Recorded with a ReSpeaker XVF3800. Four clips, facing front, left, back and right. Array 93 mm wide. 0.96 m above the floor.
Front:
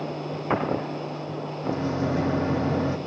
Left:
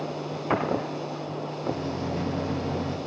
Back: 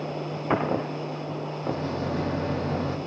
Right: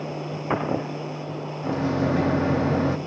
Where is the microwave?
80° right, 1.0 m.